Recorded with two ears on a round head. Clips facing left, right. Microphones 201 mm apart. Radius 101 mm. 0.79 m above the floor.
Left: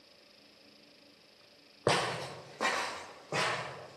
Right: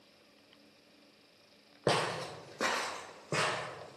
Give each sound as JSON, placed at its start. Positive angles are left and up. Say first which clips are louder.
{"t": 1.9, "sound": "footsteps", "louder": "even", "side_deg": 0, "distance_m": 1.9}